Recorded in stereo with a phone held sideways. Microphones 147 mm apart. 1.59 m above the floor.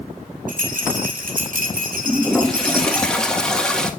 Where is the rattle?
65° right (ahead or behind), 2 m.